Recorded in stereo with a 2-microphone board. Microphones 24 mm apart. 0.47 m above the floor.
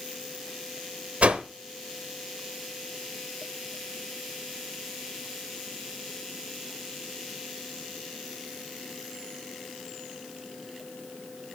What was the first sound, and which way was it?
A whoosh, 65° right (ahead or behind).